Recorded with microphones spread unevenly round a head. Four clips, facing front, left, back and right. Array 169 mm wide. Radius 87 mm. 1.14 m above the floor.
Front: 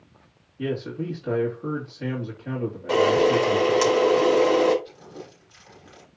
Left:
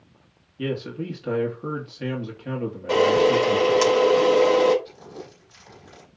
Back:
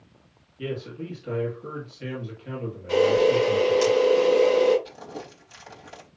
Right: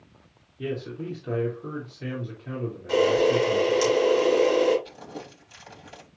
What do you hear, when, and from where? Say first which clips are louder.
0.6 s a man speaking: left 3 dB, front 4 dB; 70° left, 2.5 m
2.9 s a camera shutter: left 3 dB, even; 40° left, 4 m
4.8 s crumpling: even, back 3 dB; 165° right, 4 m